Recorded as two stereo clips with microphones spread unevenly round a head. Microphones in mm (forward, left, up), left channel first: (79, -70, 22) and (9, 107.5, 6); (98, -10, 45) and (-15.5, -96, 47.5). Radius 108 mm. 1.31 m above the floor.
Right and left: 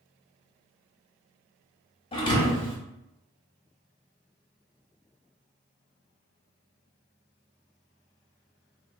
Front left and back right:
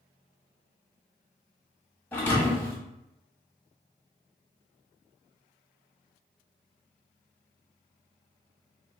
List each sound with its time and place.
2.1 s a thud: 35° right, 0.7 m